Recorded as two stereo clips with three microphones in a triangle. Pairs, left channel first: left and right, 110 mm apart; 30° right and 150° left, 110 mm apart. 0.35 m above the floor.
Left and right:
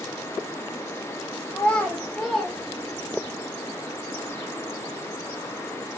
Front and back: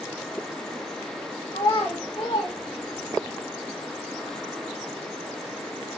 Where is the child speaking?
25° left, 1.6 m; by 3.3 s 20° right, 1.8 m.